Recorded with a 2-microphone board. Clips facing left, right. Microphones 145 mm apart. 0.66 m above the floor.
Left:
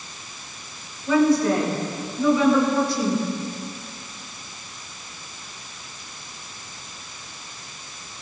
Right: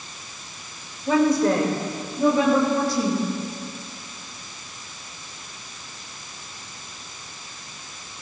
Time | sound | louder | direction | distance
1.1 | a woman speaking | left 1 dB | 55° right (ahead or behind) | 2.5 m